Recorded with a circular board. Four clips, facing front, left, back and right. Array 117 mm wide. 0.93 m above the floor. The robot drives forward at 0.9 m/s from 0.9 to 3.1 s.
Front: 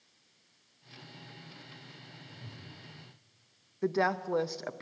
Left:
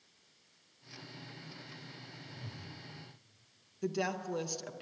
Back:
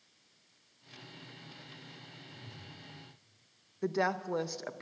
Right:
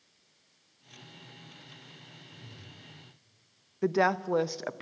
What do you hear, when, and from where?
2.2 s a whoosh: 70° left, 3 m; by 2.7 s 80° left, 3 m
3.8 s a woman speaking: 75° right, 0.5 m